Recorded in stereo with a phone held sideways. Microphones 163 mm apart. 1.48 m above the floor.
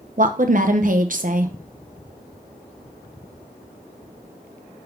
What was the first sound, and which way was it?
A woman speaking, 55° right (ahead or behind).